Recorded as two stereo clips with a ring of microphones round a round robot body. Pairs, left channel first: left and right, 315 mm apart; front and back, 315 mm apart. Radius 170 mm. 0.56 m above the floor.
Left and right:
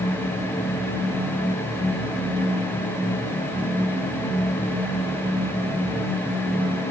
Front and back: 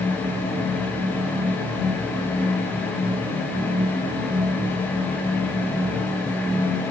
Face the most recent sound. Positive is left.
No sound to turn to.